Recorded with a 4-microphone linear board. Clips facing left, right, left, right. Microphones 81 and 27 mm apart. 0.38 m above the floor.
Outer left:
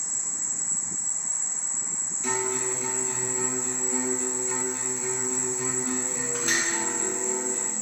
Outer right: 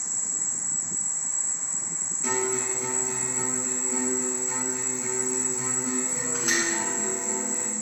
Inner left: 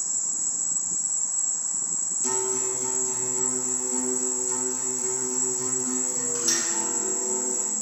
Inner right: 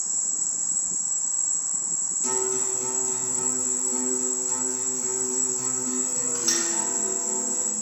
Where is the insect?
45° right (ahead or behind), 1.3 m.